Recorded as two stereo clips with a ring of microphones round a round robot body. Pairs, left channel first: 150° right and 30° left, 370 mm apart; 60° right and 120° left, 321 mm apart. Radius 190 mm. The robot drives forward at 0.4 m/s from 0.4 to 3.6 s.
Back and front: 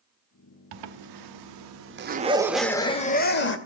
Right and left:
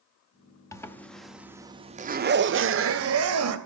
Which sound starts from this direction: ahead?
A zipper, at 0.7 s.